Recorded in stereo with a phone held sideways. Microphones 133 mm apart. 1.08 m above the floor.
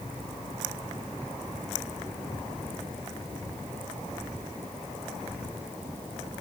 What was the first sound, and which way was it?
Only background noise.